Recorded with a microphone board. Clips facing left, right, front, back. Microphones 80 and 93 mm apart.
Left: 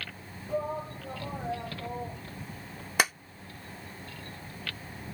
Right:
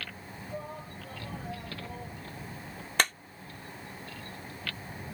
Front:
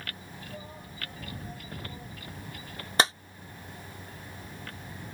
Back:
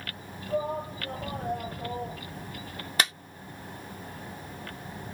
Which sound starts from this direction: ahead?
A clap, at 3.0 s.